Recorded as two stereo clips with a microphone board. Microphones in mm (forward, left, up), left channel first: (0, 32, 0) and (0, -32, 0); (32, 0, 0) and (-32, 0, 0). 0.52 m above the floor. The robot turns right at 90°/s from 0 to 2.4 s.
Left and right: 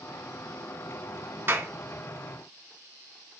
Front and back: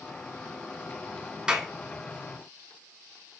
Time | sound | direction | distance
1.5 | a clap | 110° right | 1.1 m